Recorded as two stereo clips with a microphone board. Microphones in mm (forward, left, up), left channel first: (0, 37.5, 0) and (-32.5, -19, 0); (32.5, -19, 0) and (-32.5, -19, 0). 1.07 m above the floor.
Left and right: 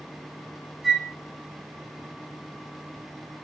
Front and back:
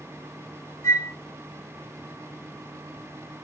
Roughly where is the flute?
Ahead right.